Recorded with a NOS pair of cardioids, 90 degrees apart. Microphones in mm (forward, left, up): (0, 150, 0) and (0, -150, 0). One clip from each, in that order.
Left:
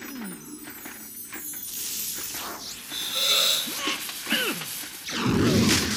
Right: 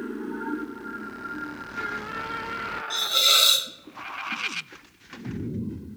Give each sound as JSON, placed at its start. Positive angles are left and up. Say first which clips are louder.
{"t": 2.9, "sound": "a hiss", "louder": "right 4 dB", "azimuth_deg": -50, "distance_m": 0.6}